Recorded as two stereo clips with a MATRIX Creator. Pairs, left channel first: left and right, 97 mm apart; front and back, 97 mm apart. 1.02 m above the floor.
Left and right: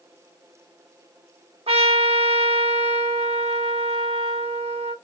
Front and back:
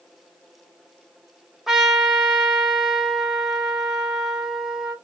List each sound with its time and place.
1.7 s a trumpet: 95° right, 0.8 m